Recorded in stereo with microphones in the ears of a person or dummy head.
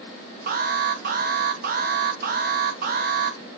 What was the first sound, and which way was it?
An alarm, 45° right (ahead or behind).